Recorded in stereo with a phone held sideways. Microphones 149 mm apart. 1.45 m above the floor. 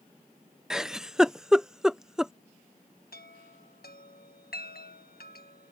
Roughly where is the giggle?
Centre.